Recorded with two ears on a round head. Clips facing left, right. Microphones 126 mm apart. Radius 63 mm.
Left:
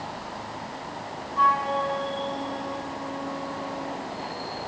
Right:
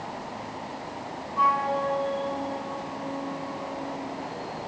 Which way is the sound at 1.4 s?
5° right (ahead or behind).